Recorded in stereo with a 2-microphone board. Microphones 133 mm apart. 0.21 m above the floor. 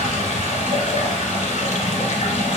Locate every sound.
0.0 s running water: 60° left (ahead or behind), 0.9 m